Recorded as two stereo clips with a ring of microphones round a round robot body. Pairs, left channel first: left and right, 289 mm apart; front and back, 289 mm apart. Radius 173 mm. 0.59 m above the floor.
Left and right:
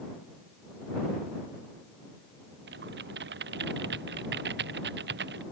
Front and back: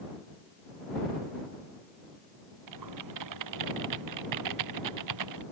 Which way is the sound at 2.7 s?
150° right.